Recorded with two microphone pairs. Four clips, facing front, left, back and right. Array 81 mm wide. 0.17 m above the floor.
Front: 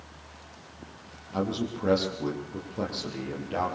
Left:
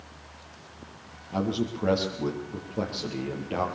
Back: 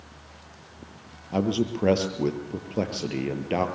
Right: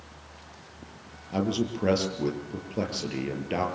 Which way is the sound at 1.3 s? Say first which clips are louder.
Right 1 dB, back 5 dB; 165° right.